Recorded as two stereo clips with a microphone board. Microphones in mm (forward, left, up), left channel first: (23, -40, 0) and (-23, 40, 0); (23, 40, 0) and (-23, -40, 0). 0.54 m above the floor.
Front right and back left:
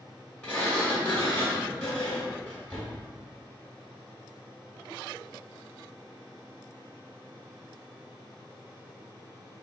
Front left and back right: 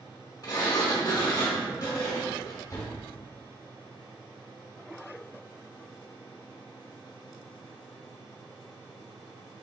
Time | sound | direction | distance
0.4 | a sliding door | 15° left | 1.4 m